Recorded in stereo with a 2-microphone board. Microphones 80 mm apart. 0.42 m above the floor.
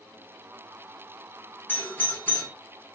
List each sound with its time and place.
1.7 s a doorbell: 25° left (ahead or behind), 1.5 m